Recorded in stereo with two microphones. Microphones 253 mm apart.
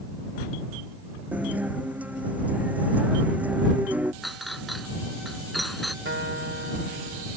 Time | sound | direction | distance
1.3 | a guitar | 5° right (ahead or behind) | ?
4.2 | a clink | centre (ahead or behind) | ?
6.0 | a guitar | 55° right (ahead or behind) | ?